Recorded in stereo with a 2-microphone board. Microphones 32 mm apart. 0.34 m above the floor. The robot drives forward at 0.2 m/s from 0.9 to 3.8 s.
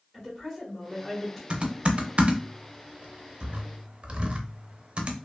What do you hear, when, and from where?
0.1 s a woman speaking: 15° left (ahead or behind), 1.3 m
1.5 s typing on a keyboard: 40° right (ahead or behind), 0.5 m